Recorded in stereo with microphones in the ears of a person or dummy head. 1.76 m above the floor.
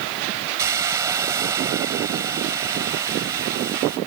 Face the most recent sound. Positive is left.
turn(degrees=-15)  # may be behind; listen again after turning